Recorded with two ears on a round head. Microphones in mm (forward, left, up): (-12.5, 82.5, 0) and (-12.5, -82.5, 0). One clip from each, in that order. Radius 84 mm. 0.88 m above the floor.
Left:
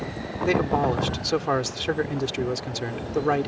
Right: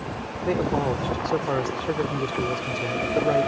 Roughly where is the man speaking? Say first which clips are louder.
Left 2 dB; left.